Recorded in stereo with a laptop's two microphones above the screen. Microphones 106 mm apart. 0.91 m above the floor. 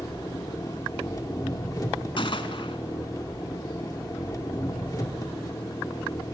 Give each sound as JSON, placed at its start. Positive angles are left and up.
{"t": 0.0, "sound": "an engine running", "side_deg": 35, "distance_m": 1.0}
{"t": 2.2, "sound": "a gunshot", "side_deg": 55, "distance_m": 1.3}